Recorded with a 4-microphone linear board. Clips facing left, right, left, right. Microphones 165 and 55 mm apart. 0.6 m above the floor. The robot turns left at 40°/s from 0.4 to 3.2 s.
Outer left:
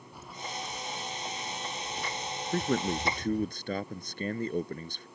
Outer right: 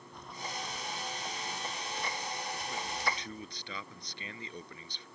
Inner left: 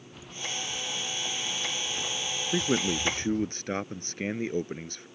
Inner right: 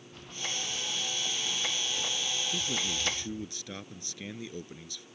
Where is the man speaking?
75° left (ahead or behind); by 5.1 s 50° left (ahead or behind).